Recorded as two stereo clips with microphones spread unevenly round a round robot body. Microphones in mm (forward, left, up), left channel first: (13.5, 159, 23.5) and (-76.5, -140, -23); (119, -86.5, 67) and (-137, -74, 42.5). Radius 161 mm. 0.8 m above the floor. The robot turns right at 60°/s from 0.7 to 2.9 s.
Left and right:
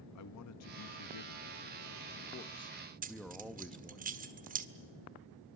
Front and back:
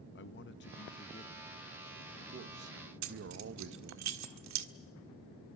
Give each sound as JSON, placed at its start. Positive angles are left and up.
{"t": 0.1, "sound": "a man speaking", "azimuth_deg": 35, "distance_m": 0.8}
{"t": 3.0, "sound": "keys jangling", "azimuth_deg": -170, "distance_m": 1.5}